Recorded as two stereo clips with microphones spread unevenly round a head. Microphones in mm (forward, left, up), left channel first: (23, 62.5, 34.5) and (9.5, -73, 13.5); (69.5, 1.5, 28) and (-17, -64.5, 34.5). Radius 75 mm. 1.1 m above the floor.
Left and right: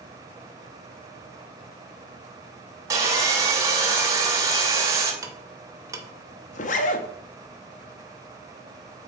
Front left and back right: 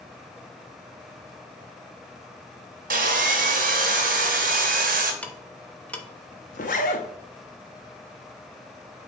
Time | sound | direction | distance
2.9 | sawing | 170° right | 0.9 m
5.2 | ticking | 35° right | 1.0 m
6.5 | a zipper | 70° left | 0.7 m